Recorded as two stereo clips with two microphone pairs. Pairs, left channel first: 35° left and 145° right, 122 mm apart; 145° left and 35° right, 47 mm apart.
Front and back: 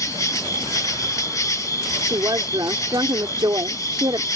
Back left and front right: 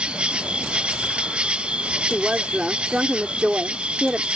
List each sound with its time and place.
0.0 s an insect: straight ahead
2.1 s a woman speaking: 100° right